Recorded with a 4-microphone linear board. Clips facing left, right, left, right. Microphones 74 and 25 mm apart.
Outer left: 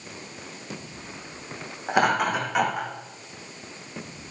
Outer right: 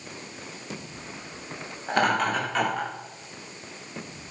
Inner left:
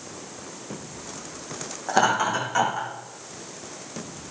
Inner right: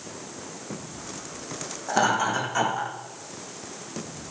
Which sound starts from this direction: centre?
Laughter, at 1.9 s.